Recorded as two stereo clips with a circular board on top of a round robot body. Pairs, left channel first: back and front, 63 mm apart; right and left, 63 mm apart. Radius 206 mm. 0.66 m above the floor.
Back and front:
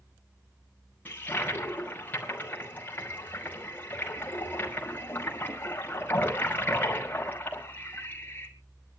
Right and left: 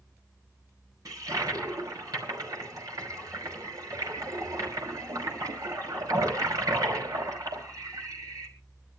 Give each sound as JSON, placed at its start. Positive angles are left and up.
{"t": 1.1, "sound": "a toilet flushing", "azimuth_deg": 120, "distance_m": 5.5}